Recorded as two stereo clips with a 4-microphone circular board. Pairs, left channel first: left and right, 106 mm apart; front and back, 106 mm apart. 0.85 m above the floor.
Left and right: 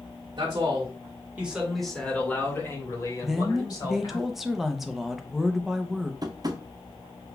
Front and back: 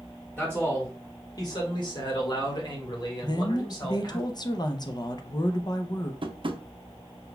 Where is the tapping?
140° right, 0.5 m.